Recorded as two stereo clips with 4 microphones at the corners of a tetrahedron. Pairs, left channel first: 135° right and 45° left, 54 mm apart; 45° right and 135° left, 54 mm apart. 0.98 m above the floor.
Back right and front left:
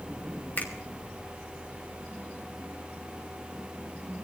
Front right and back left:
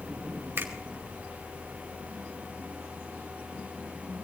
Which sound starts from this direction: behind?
A finger snap, at 0.6 s.